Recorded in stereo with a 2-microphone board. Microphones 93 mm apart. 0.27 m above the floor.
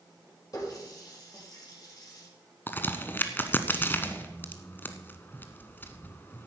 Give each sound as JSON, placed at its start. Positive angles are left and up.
{"t": 0.5, "sound": "a running tap", "side_deg": 45, "distance_m": 5.5}
{"t": 2.7, "sound": "a crack", "side_deg": 25, "distance_m": 1.1}